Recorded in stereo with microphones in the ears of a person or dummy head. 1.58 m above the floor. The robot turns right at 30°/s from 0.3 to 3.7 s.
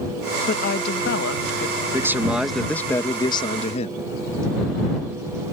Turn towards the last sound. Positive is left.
turn(degrees=40)